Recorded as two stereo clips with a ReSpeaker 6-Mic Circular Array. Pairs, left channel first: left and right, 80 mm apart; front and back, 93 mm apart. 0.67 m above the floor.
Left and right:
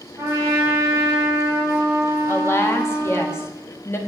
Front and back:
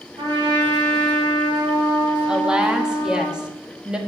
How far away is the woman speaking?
About 1.2 m.